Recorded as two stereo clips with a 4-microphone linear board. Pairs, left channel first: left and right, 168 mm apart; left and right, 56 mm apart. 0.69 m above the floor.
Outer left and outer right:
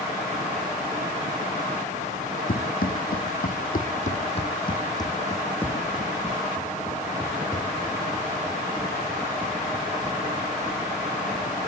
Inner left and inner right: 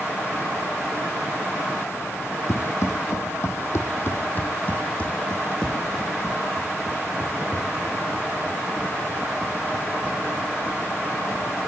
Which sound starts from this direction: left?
Running footsteps, at 2.5 s.